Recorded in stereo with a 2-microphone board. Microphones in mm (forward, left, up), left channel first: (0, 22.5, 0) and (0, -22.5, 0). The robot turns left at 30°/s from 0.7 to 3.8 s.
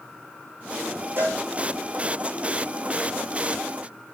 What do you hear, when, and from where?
1.2 s a cowbell: 60° right (ahead or behind), 6.5 m; by 1.4 s 70° right (ahead or behind), 6.5 m